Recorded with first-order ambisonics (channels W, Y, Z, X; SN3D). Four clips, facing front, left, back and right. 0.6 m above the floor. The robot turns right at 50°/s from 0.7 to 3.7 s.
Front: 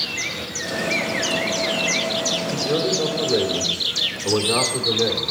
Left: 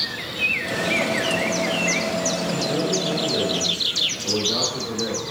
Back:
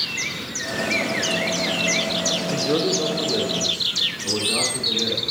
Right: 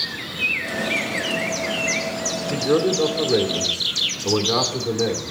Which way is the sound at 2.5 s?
120° right.